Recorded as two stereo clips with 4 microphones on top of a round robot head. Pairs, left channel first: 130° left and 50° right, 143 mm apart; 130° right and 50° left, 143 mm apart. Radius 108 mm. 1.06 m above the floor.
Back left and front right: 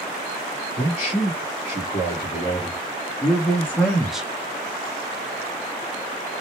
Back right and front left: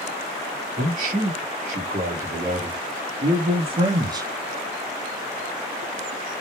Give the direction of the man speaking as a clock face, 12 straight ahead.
9 o'clock.